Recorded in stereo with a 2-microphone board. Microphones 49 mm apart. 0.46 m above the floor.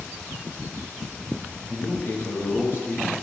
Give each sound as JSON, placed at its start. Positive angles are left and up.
{"t": 1.7, "sound": "a man speaking", "side_deg": 50, "distance_m": 9.5}